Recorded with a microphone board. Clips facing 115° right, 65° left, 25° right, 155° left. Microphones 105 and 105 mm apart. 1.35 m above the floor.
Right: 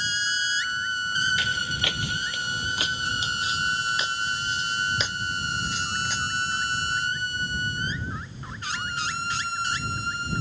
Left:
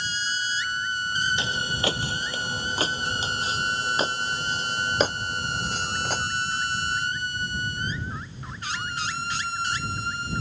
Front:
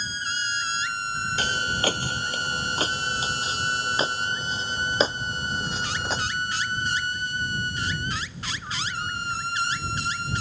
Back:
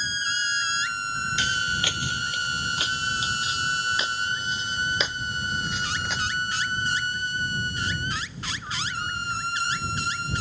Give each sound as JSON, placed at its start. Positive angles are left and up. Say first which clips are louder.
{"t": 1.4, "sound": "footsteps", "louder": "left 1 dB, front 3 dB", "azimuth_deg": 15}